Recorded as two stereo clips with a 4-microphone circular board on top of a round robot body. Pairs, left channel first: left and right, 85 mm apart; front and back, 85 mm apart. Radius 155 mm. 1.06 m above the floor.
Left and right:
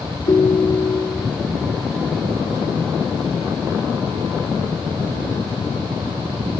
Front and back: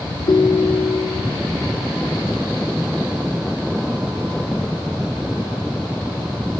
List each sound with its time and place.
0.3 s a ringtone: 45° left, 0.5 m